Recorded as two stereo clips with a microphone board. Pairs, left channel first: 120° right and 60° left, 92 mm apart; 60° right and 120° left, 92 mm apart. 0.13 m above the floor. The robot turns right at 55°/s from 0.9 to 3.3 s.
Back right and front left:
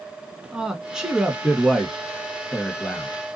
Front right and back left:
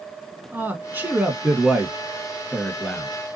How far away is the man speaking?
About 1.1 m.